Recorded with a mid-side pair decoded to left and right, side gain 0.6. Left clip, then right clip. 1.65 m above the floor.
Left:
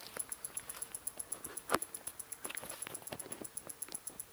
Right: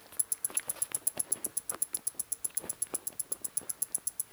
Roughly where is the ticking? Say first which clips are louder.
Right 9 dB; ahead right.